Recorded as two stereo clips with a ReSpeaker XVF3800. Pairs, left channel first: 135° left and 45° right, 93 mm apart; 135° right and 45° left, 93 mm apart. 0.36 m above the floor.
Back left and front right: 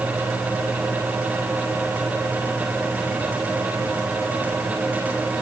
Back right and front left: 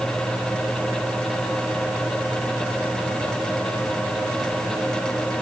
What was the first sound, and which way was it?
Only background noise.